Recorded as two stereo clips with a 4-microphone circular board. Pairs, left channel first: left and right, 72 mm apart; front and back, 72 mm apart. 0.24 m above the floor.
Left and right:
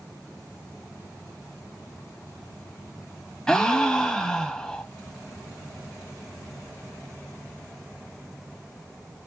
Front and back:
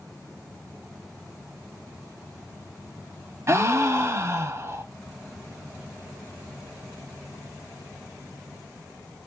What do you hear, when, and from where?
3.5 s a gasp: 165° left, 0.5 m